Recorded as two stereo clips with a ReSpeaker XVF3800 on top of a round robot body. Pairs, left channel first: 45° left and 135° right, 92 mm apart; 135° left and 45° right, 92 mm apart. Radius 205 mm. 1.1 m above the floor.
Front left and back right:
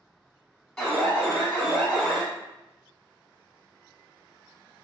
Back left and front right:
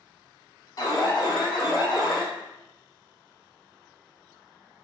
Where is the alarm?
125° left, 1.5 m.